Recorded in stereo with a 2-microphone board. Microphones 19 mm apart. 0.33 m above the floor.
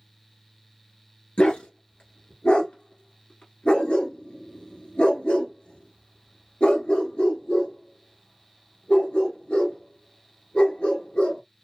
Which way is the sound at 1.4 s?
85° left.